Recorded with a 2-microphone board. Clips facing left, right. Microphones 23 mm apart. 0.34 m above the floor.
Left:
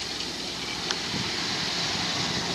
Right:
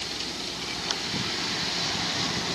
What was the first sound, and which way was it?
Only background noise.